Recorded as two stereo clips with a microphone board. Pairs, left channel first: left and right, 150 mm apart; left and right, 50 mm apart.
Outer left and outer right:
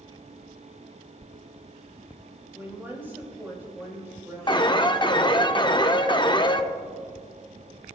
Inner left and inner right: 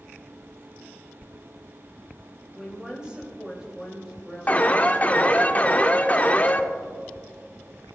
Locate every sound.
2.5 s a woman speaking: 15° right (ahead or behind), 3 m
4.5 s an alarm: 30° left (ahead or behind), 0.6 m